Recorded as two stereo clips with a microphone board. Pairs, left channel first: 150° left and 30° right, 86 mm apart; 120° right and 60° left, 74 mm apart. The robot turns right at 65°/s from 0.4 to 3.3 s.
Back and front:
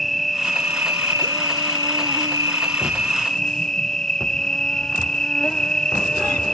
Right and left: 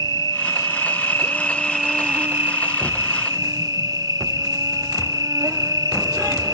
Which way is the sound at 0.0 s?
120° right.